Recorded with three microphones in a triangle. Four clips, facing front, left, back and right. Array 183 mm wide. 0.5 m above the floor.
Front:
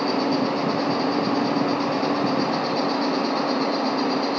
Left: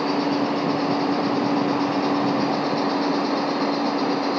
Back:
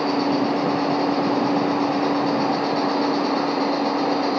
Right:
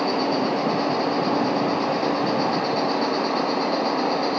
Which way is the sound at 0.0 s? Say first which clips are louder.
Even, back 2 dB; 145° right.